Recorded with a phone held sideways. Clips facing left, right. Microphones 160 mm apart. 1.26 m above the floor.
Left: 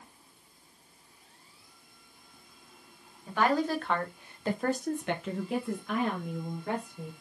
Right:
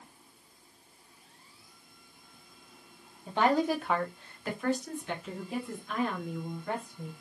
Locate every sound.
3.3 s a woman speaking: 25° right (ahead or behind), 1.2 m; by 7.1 s 70° left (ahead or behind), 2.5 m